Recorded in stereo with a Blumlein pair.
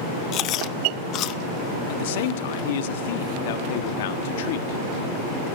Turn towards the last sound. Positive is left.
turn(degrees=55)